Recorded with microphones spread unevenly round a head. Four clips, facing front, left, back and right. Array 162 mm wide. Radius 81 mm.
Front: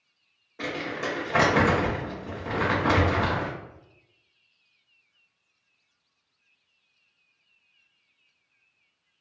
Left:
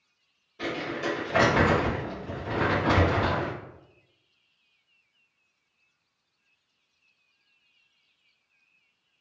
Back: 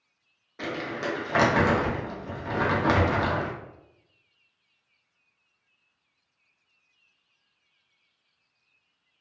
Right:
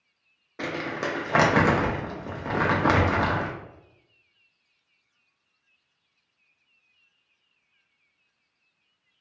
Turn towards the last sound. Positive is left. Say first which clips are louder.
# right 1 dB, even
turn(degrees=-85)